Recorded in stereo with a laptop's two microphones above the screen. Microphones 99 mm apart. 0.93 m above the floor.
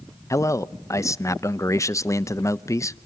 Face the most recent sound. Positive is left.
turn(degrees=30)  # may be behind; listen again after turning